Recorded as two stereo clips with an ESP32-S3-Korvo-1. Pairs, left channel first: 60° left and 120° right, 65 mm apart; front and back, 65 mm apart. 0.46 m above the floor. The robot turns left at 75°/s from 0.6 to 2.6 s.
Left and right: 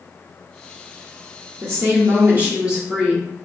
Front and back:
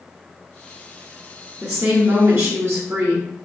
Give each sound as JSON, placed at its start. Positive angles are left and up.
{"t": 1.6, "sound": "a woman speaking", "azimuth_deg": -105, "distance_m": 1.0}